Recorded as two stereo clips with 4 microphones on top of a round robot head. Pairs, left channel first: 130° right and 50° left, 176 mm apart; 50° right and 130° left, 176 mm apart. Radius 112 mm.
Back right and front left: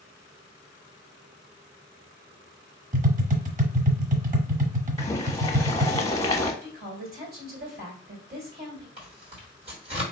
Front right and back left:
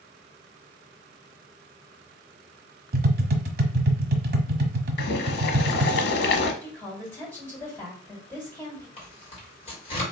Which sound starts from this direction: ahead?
Tearing paper, at 9.0 s.